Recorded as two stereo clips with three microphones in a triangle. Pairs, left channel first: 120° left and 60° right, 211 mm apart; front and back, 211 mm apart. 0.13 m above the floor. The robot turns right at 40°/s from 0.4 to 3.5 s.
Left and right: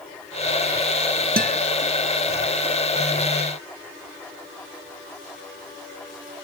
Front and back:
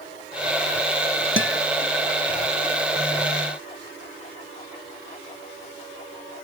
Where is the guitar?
15° right, 0.8 m; by 1.6 s 5° right, 0.8 m.